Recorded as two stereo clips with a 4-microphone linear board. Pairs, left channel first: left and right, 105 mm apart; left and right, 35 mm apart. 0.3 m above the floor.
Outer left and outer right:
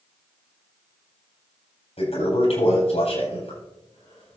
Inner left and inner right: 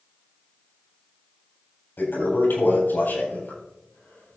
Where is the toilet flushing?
80° left, 8 m.